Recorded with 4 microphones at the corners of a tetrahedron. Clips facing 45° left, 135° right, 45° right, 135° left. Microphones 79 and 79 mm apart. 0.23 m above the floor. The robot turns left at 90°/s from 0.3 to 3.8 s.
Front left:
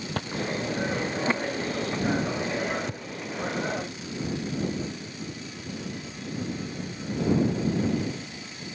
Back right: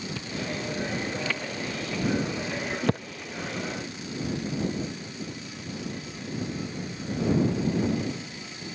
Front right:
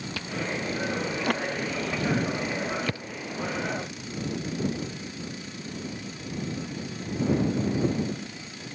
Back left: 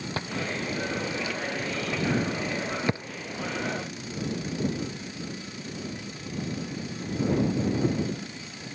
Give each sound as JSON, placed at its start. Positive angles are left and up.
{"t": 0.2, "sound": "chewing", "azimuth_deg": 80}